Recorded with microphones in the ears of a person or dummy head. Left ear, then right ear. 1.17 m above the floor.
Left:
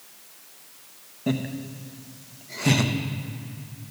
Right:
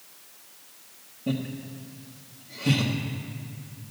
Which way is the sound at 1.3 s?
55° left (ahead or behind).